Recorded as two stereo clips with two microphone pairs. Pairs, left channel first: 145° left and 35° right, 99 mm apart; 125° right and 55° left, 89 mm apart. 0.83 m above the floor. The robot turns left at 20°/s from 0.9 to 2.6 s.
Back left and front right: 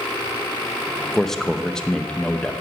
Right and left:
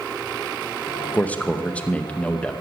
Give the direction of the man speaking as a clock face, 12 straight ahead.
5 o'clock.